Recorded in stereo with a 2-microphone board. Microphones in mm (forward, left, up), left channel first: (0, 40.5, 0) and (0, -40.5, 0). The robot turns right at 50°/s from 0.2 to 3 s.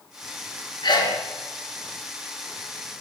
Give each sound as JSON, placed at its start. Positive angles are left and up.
{"t": 0.8, "sound": "a sneeze", "side_deg": 65, "distance_m": 2.5}